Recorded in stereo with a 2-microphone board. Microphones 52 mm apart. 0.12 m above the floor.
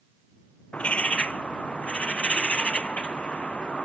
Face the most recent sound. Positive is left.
turn(degrees=20)  # may be behind; listen again after turning